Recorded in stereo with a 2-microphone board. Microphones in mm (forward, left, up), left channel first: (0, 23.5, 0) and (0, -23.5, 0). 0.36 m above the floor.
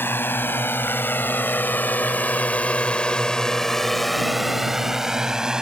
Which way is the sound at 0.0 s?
50° left (ahead or behind).